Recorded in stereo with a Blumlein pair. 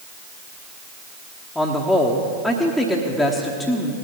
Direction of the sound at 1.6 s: 5° left.